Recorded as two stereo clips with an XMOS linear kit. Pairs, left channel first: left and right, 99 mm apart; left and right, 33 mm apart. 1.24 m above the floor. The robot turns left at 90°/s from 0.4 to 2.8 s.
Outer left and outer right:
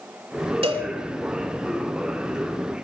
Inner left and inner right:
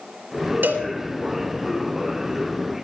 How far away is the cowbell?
About 4.5 m.